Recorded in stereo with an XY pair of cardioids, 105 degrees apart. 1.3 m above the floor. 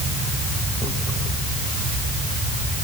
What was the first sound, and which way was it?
Only background noise.